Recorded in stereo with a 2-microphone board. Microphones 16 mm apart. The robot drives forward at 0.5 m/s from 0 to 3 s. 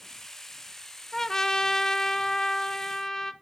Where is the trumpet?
25° left (ahead or behind), 0.6 m; by 3.3 s 20° left (ahead or behind), 0.7 m.